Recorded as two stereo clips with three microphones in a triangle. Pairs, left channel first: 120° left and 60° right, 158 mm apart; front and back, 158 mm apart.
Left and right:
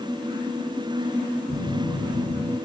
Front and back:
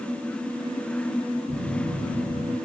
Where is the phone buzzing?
165° right, 1.4 m.